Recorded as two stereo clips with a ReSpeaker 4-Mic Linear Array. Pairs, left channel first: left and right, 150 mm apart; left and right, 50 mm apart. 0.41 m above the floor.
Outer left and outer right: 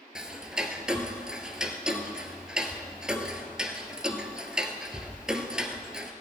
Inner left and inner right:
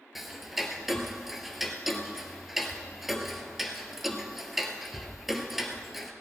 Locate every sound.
0.1 s ticking: 5° right (ahead or behind), 1.2 m